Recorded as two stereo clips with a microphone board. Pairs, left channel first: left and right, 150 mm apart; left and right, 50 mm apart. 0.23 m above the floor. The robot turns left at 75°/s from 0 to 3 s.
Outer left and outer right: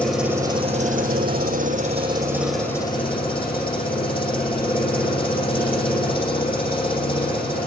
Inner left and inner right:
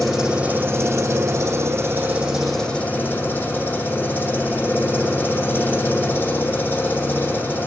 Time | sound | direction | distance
0.0 | an engine running | 10° left | 5.5 m